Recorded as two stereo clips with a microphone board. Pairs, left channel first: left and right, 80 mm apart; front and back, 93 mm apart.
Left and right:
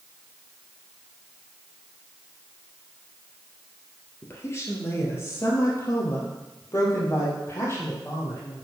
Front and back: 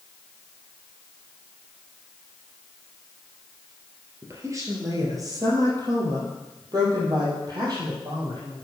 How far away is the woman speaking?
About 2.5 m.